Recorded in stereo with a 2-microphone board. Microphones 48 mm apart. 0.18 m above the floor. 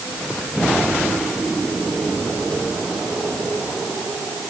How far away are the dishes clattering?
No dishes clattering in this recording.